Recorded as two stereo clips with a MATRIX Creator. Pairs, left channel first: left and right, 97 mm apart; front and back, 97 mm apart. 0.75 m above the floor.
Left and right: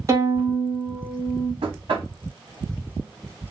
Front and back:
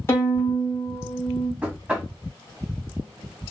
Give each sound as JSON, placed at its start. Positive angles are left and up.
{"t": 0.1, "sound": "a violin", "azimuth_deg": -50, "distance_m": 1.3}
{"t": 1.6, "sound": "knocking", "azimuth_deg": -105, "distance_m": 0.9}